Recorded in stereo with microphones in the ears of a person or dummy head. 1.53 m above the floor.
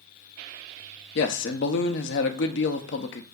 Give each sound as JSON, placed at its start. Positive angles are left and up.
{"t": 1.1, "sound": "a man speaking", "side_deg": 55, "distance_m": 0.6}